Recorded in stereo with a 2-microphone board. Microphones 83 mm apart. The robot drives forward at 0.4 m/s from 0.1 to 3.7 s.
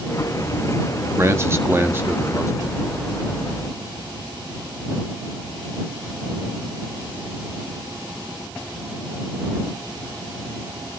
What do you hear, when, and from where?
1.2 s a man speaking: 30° right (ahead or behind), 1.5 m; by 2.8 s 20° right (ahead or behind), 2 m